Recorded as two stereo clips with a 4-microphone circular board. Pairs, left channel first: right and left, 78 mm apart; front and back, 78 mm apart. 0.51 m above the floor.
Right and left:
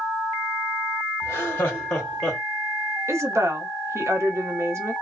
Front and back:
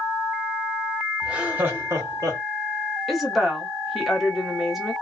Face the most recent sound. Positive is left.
turn(degrees=90)